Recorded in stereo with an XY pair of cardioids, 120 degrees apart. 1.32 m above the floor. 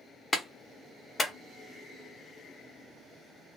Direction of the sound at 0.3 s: 25° left.